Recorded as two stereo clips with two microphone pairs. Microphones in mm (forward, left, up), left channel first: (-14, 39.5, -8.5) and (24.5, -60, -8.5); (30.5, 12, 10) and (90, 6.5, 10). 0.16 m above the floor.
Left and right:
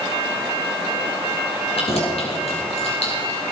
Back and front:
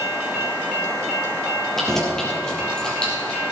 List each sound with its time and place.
1.8 s keys jangling: 90° left, 3 m; by 3.4 s 100° left, 4 m